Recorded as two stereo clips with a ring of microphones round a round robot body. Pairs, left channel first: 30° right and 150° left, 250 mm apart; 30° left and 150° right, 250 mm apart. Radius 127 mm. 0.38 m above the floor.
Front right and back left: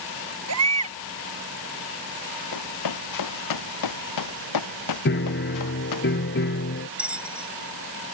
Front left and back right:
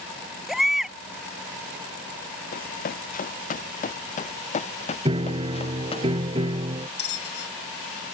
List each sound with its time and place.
0.5 s a baby crying: 120° left
2.5 s running footsteps: 30° right; by 6.0 s 40° right
5.0 s a piano: 80° right
7.0 s a bell: 65° left